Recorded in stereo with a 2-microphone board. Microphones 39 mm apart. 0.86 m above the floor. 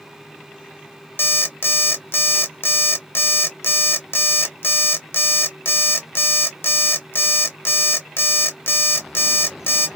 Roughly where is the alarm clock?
Left.